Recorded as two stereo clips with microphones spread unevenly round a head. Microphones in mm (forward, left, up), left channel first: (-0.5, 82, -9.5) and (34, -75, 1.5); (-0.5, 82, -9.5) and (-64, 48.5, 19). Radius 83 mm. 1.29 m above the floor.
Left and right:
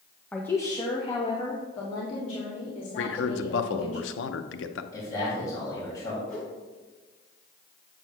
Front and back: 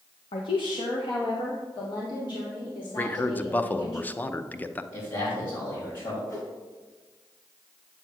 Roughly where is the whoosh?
Ahead left.